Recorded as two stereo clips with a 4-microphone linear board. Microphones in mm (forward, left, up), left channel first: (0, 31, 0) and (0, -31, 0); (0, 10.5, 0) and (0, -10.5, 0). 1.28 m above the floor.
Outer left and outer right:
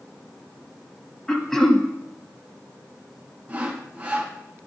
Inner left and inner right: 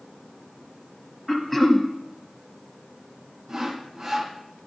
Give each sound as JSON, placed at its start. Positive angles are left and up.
{"t": 1.3, "sound": "throat clearing", "side_deg": 10, "distance_m": 1.0}
{"t": 3.5, "sound": "sawing", "side_deg": -20, "distance_m": 1.0}